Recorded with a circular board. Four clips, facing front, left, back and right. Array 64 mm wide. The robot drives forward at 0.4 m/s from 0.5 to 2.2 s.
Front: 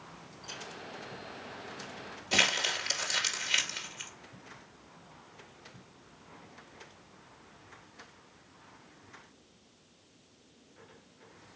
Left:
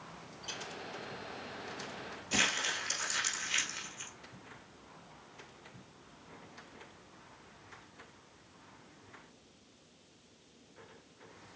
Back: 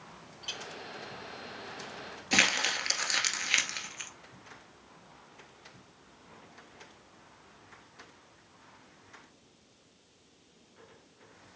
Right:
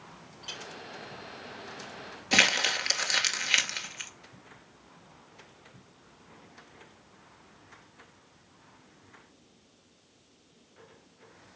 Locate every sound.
0.4 s a clink: 160° right, 3 m
2.3 s crumpling: 110° right, 1.7 m